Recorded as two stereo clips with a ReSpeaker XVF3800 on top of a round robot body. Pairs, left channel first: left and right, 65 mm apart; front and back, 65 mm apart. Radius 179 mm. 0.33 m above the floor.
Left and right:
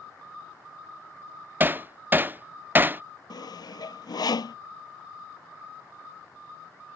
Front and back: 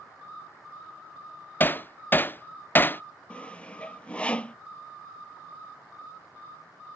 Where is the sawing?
75° left.